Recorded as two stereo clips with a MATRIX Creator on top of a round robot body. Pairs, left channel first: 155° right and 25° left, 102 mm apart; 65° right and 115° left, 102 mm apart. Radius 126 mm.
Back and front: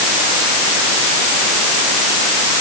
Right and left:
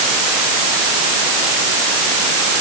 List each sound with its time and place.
Only background noise.